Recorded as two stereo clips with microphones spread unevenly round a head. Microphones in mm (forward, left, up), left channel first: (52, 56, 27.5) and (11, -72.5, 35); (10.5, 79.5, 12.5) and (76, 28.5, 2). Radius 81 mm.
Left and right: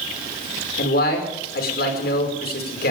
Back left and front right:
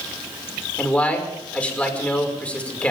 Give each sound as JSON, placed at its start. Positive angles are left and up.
{"t": 0.8, "sound": "a man speaking", "azimuth_deg": 70, "distance_m": 5.0}